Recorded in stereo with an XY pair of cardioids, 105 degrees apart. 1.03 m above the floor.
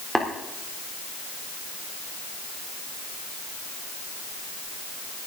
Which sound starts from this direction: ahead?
Tapping, at 0.1 s.